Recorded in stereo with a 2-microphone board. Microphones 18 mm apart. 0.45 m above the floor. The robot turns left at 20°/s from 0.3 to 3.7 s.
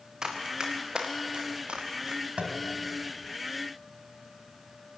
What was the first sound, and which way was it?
Running footsteps, 30° right (ahead or behind).